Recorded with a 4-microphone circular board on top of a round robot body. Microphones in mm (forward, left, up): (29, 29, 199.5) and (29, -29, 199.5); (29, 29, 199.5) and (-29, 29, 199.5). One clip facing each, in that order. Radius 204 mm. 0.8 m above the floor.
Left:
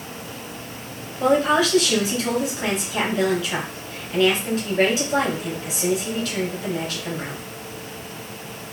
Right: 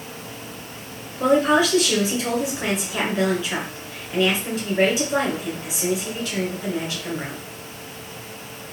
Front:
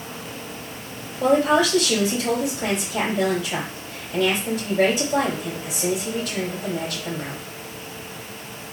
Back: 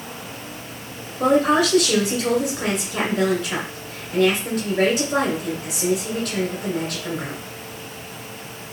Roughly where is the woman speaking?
Behind.